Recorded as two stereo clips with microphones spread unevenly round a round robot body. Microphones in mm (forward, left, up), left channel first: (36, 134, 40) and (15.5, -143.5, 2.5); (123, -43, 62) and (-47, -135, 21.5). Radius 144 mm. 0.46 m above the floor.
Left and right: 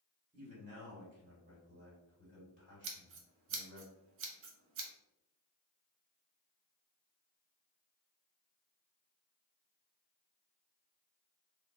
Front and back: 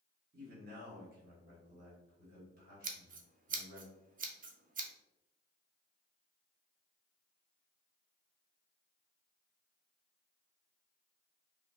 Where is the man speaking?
155° right, 1.3 m.